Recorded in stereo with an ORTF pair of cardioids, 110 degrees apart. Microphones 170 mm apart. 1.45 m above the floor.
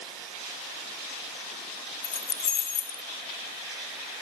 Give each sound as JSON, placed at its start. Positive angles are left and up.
{"t": 2.0, "sound": "keys jangling", "azimuth_deg": 45, "distance_m": 1.2}